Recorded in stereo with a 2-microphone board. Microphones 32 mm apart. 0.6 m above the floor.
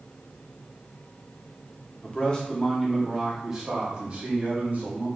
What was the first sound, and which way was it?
A man speaking, 35° left (ahead or behind).